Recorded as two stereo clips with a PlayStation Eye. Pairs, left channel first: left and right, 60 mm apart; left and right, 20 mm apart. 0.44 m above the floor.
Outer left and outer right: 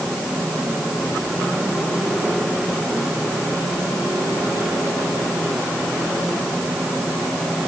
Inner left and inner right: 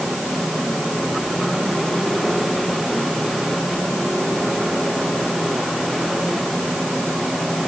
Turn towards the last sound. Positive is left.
No sound to turn to.